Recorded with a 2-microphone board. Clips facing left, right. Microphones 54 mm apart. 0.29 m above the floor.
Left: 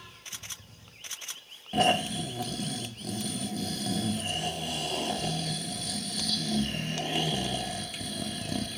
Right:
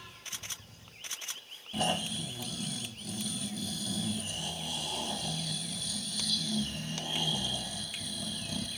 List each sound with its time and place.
1.7 s snoring: 75° left (ahead or behind), 1.0 m